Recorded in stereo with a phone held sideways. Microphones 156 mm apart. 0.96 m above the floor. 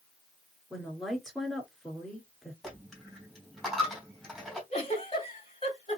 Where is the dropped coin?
Centre (ahead or behind), 2.5 m.